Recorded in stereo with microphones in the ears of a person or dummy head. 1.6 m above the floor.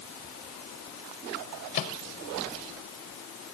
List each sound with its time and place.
1.7 s a microwave: 40° left (ahead or behind)